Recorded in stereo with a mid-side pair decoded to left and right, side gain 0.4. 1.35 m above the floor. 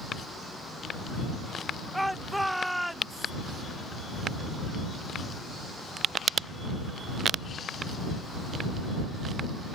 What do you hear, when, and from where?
1.9 s a shout: 5° right